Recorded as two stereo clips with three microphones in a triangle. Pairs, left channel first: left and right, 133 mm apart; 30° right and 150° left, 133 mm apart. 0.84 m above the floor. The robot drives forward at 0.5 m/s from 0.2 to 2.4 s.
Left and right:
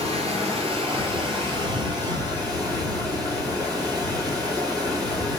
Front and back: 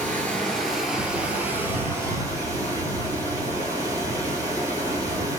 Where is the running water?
105° right, 1.2 m; by 5.4 s 145° right, 1.7 m.